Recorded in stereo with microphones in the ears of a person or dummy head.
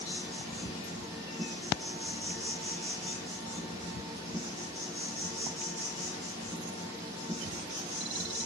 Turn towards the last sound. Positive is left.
turn(degrees=-15)  # may be behind; listen again after turning